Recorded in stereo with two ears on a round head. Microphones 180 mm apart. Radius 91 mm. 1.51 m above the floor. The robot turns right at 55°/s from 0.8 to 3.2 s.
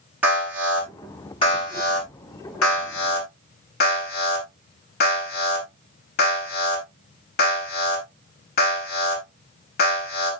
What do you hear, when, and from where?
0.2 s an alarm: 10° right (ahead or behind), 10 m; by 10.3 s 55° left (ahead or behind), 10 m